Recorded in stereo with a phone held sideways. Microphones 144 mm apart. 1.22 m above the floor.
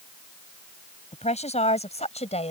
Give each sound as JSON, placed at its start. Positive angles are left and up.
{"t": 1.1, "sound": "a woman speaking", "side_deg": 50}